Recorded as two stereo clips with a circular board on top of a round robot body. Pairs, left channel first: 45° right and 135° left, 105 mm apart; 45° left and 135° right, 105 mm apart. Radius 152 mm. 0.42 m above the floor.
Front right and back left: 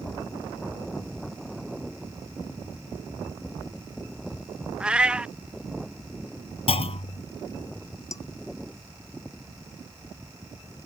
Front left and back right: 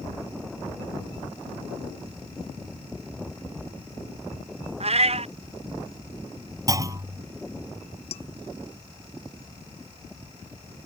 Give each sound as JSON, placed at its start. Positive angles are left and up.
{"t": 4.8, "sound": "a cat meowing", "azimuth_deg": -145}
{"t": 6.7, "sound": "a clunk", "azimuth_deg": -75}
{"t": 8.1, "sound": "dishes clattering", "azimuth_deg": 15}